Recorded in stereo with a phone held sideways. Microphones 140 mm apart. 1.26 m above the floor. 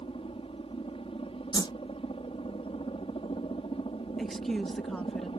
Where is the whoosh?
30° left (ahead or behind).